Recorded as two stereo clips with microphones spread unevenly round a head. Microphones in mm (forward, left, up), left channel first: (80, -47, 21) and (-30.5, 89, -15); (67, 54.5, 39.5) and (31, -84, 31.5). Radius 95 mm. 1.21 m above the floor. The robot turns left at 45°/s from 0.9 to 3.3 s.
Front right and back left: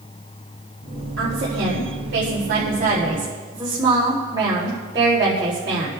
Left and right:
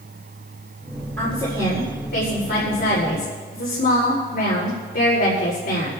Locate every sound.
1.2 s a woman speaking: 155° left, 4.5 m; by 5.9 s 60° left, 4.5 m